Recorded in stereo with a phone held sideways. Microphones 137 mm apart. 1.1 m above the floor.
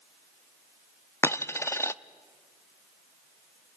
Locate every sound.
1.2 s a dropped coin: 20° left (ahead or behind), 0.5 m